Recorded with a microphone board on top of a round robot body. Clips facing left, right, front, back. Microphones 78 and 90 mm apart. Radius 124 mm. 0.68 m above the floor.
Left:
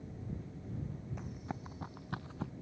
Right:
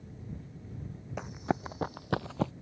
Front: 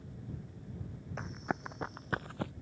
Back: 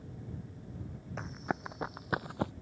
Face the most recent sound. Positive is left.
turn(degrees=-115)